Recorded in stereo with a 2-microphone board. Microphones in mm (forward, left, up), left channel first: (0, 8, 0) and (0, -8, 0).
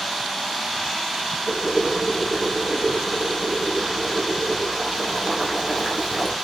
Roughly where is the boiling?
Centre.